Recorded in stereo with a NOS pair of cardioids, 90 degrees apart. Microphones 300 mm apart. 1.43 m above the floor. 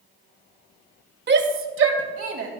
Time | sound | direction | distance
1.3 | a shout | 35° right | 1.6 m